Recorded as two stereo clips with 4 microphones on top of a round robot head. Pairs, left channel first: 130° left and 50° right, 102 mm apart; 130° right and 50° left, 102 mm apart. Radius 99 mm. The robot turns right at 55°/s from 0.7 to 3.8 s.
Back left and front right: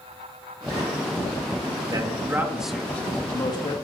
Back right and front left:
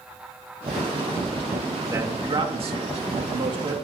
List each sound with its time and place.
1.9 s a man speaking: 10° right, 2.5 m; by 3.7 s 95° left, 2.5 m